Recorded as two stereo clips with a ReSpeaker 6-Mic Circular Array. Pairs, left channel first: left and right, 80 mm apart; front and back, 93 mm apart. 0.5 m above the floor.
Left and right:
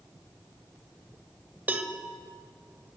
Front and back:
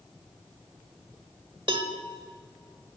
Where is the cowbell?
160° right, 0.8 m.